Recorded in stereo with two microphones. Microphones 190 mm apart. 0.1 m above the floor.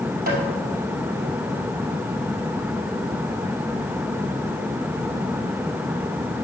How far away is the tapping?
About 2.5 m.